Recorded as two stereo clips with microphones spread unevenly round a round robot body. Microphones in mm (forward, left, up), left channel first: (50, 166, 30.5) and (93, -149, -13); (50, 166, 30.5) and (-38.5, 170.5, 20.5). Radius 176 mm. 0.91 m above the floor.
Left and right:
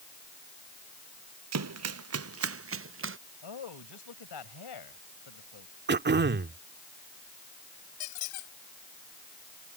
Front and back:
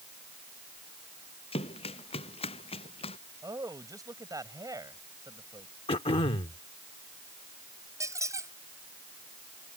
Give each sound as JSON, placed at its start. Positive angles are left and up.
{"t": 1.5, "sound": "running footsteps", "azimuth_deg": -45}
{"t": 3.4, "sound": "a man speaking", "azimuth_deg": 130}
{"t": 5.9, "sound": "throat clearing", "azimuth_deg": -20}
{"t": 8.0, "sound": "a squeak", "azimuth_deg": 120}